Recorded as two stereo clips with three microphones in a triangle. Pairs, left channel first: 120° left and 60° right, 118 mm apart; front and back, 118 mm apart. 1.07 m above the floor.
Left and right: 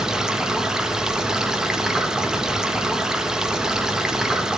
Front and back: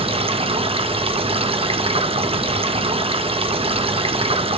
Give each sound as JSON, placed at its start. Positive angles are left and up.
{"t": 0.0, "sound": "running water", "azimuth_deg": -145, "distance_m": 1.0}